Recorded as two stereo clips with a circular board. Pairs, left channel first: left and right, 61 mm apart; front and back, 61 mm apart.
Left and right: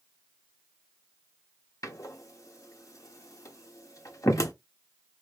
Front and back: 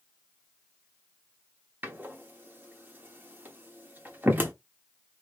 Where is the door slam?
120° left, 1.0 m.